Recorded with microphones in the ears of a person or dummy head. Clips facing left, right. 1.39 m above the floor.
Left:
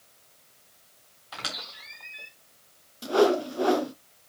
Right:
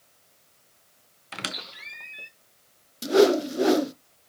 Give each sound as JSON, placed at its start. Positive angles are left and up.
{"t": 1.3, "sound": "a squeak", "side_deg": -30, "distance_m": 0.6}
{"t": 3.0, "sound": "a whoosh", "side_deg": -30, "distance_m": 0.5}